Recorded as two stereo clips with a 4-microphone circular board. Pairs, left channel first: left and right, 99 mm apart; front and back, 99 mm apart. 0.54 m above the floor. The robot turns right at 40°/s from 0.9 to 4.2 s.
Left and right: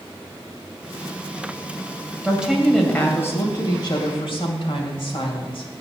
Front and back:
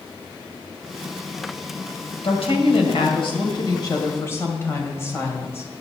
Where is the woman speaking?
15° right, 2.5 m; by 5.7 s 65° left, 2.5 m.